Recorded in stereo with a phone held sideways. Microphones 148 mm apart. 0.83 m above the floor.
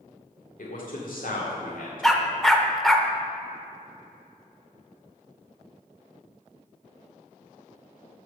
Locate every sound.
0.6 s a man speaking: 70° left (ahead or behind), 1.9 m
2.0 s a dog barking: centre (ahead or behind), 0.8 m